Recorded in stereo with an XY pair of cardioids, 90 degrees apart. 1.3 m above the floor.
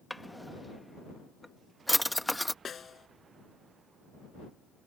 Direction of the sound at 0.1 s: 5° left.